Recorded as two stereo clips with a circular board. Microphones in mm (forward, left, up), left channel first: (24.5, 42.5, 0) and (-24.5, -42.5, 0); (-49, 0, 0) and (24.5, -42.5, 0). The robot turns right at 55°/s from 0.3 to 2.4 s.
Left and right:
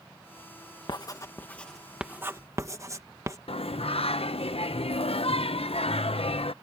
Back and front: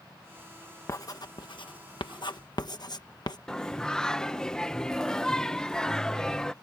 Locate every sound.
0.9 s writing: 100° left; by 3.4 s straight behind
3.5 s singing: 70° left